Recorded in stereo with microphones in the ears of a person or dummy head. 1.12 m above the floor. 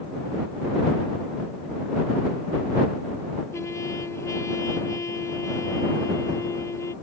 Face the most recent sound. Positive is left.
turn(degrees=10)  # may be behind; listen again after turning